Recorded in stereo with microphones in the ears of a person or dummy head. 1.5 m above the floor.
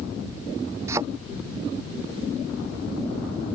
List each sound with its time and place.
0.9 s a thud: 20° right (ahead or behind)